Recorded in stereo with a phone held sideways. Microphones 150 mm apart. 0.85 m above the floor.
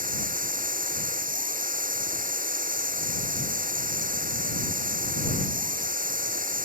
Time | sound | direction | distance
0.0 | a machine running | 65° right (ahead or behind) | ?